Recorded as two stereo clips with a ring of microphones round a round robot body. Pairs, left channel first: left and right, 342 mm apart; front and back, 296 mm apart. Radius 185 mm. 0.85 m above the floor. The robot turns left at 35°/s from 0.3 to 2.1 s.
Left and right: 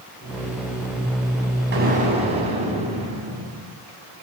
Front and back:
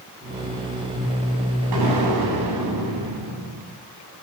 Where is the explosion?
150° right, 7.5 m; by 3.7 s 160° right, 7.5 m.